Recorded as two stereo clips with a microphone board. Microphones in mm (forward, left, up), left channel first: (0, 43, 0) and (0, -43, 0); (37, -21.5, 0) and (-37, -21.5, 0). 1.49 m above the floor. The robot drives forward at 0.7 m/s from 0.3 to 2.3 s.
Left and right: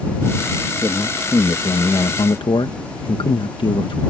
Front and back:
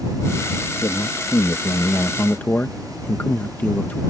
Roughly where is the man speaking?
Ahead left.